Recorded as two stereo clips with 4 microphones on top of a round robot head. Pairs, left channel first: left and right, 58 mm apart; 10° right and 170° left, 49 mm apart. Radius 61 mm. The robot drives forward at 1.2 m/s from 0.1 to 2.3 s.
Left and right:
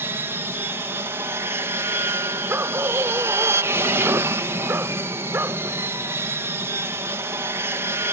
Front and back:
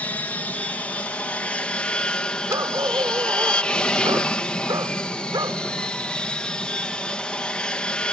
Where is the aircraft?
60° right; by 8.1 s 75° right.